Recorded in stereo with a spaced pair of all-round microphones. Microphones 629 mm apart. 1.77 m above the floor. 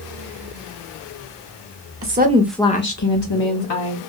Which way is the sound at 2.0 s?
25° right (ahead or behind).